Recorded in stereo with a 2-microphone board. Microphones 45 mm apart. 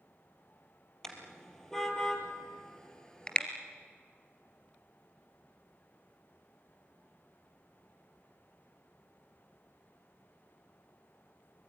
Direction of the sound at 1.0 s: 10° left (ahead or behind).